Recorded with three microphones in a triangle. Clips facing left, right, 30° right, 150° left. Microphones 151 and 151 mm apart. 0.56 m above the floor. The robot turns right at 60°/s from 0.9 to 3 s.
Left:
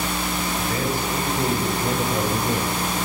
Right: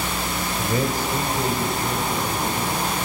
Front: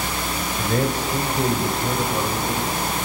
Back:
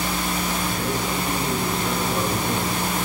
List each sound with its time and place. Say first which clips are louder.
0.6 s a man speaking: right 4 dB, front 3 dB; 25° right, 3 m; by 2.8 s 95° left, 3 m